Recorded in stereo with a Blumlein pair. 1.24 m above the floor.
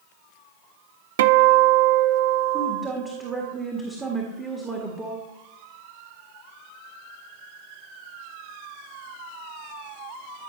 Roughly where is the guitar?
Ahead right.